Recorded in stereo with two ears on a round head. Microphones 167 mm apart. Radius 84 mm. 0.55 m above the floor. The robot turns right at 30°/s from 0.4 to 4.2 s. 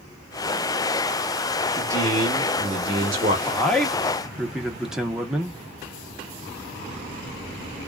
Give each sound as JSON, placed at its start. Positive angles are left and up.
{"t": 1.8, "sound": "a man speaking", "azimuth_deg": -100, "distance_m": 0.9}
{"t": 3.5, "sound": "a man speaking", "side_deg": 10, "distance_m": 0.8}